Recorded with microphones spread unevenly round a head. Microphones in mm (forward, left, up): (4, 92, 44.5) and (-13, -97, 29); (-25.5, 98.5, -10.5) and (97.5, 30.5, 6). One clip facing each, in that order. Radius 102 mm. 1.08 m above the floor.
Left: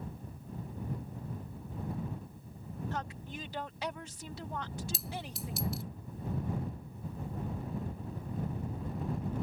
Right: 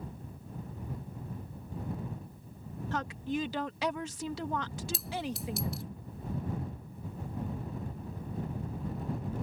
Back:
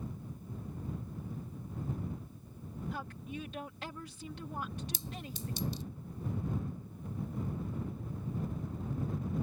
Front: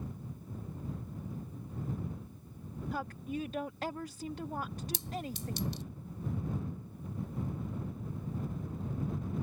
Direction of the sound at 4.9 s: 5° right.